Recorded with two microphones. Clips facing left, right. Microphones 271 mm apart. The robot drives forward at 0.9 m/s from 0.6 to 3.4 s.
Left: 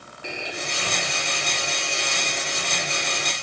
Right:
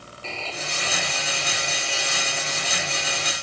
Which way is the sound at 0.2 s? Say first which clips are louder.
Left 2 dB; 15° left (ahead or behind).